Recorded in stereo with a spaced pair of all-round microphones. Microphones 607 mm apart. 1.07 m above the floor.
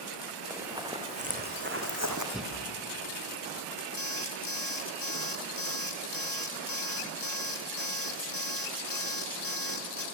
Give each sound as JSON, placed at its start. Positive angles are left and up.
{"t": 0.5, "sound": "running footsteps", "side_deg": -5, "distance_m": 4.5}
{"t": 2.3, "sound": "breathing", "side_deg": 0, "distance_m": 4.0}
{"t": 4.0, "sound": "an alarm clock", "side_deg": 40, "distance_m": 2.0}